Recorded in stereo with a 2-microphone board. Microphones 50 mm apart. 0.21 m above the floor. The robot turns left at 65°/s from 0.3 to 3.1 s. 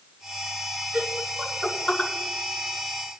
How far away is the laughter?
About 2 m.